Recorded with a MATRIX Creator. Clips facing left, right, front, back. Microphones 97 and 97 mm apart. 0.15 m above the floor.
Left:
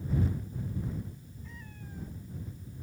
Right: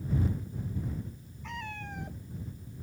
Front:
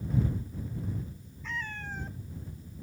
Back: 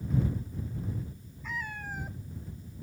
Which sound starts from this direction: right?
A cat meowing, at 1.4 s.